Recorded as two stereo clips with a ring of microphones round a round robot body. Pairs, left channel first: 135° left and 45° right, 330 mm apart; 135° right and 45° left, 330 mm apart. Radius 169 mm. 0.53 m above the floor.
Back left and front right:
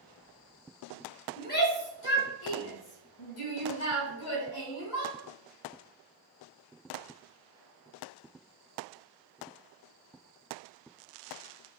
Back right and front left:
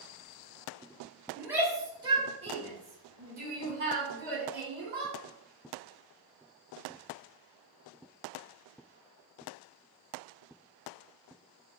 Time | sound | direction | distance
1.4 | a shout | 125° left | 1.2 m